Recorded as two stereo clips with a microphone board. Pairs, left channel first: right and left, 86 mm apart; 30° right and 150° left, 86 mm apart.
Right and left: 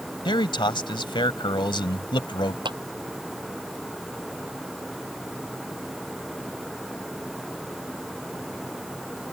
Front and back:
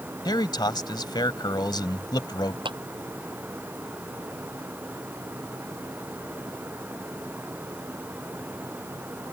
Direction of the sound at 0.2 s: 65° right.